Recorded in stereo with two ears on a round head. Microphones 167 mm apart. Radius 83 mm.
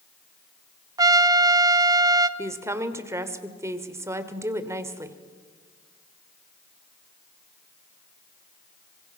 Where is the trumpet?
20° right (ahead or behind), 0.7 m.